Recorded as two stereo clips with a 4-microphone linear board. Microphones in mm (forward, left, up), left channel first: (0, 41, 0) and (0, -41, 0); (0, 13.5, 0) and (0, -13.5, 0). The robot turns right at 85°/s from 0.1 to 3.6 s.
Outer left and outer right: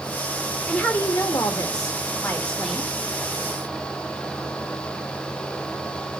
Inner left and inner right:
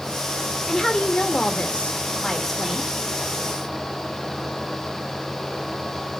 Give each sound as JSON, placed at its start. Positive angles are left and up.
{"t": 0.7, "sound": "a woman speaking", "azimuth_deg": 10, "distance_m": 1.9}